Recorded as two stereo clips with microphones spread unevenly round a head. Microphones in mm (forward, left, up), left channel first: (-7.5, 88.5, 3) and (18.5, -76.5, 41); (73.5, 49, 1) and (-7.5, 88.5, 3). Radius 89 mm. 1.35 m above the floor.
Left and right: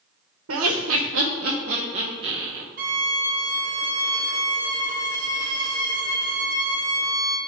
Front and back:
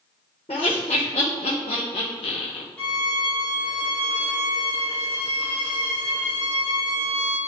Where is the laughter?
80° right, 1.2 m; by 2.6 s 5° right, 1.1 m.